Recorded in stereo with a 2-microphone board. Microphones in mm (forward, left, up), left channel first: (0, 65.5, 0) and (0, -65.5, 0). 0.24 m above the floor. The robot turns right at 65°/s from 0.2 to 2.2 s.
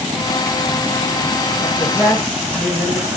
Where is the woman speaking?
140° left, 1.8 m; by 3.1 s 175° left, 1.8 m.